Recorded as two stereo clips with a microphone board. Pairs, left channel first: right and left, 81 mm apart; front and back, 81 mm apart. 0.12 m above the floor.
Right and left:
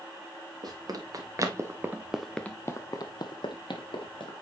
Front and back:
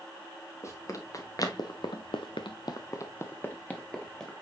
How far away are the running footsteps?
About 2.5 m.